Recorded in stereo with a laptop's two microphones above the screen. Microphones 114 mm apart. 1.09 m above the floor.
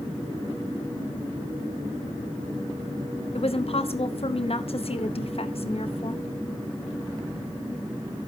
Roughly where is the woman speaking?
Left.